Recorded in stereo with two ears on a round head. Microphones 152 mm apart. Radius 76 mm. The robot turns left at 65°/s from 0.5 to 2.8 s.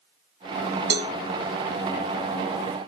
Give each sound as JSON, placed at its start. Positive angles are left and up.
{"t": 0.9, "sound": "a cowbell", "side_deg": -70, "distance_m": 1.1}